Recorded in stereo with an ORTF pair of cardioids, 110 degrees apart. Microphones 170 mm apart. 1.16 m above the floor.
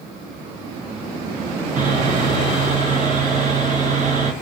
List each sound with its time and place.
1.8 s sawing: 45° right, 1.0 m